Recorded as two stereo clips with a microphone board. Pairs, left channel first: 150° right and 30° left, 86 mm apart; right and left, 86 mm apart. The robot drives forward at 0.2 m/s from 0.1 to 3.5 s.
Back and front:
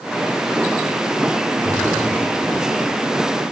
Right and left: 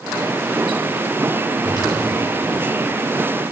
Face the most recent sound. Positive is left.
turn(degrees=-140)